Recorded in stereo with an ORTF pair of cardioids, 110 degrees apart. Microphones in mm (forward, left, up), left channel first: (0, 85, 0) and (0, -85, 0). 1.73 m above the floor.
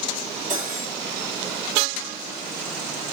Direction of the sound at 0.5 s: 50° right.